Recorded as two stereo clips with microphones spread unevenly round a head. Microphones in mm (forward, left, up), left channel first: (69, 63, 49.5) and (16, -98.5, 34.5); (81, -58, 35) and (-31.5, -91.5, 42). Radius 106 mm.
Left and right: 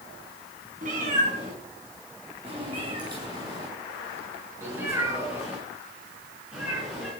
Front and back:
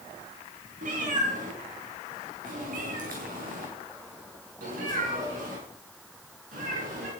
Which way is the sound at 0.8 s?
165° right.